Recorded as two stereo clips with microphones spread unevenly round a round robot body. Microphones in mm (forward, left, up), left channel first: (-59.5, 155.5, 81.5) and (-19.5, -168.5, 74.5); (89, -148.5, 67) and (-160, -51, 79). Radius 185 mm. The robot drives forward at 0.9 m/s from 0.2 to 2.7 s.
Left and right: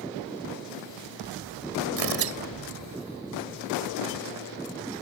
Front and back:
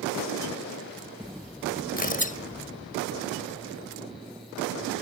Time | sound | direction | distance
2.0 | tearing paper | 75° right | ?